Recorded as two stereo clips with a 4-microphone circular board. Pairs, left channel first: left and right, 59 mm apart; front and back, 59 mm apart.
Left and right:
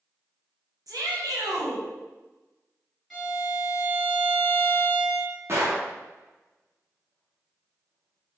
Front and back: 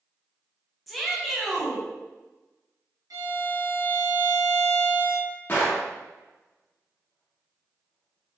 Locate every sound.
0.9 s a shout: 90° right, 1.1 m
3.1 s a violin: 175° left, 1.9 m
5.5 s a gunshot: 55° right, 1.0 m